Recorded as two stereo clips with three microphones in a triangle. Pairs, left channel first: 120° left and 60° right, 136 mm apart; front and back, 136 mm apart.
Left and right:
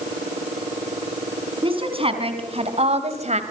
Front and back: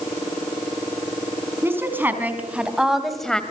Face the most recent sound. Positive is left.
turn(degrees=-85)